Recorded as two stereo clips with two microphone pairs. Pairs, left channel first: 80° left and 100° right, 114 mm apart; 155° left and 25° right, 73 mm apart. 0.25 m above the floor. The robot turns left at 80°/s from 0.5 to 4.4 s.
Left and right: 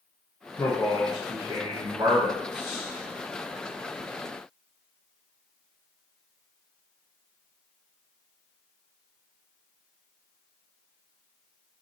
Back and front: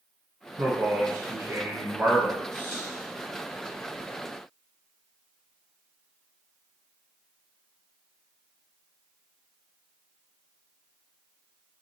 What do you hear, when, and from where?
0.6 s a man speaking: 25° left, 1.9 m; by 2.8 s 155° right, 1.9 m